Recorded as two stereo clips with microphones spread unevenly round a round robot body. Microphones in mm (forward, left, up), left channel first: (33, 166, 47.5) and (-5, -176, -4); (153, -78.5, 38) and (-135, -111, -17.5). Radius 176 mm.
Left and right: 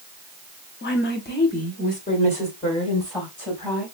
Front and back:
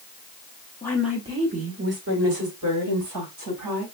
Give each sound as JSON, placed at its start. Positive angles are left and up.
{"t": 0.8, "sound": "a woman speaking", "azimuth_deg": 95, "distance_m": 0.8}